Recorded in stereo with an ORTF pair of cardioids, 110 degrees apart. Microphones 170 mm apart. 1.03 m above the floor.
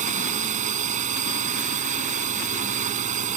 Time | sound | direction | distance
0.0 | a drone | 45° right | ?